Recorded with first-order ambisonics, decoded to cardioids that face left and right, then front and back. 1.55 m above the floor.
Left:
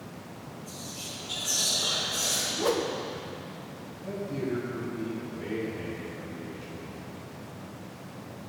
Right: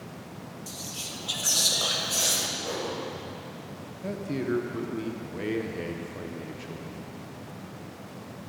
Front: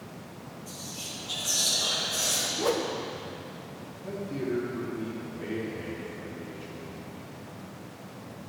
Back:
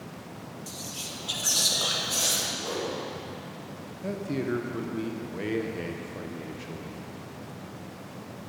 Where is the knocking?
I don't hear knocking.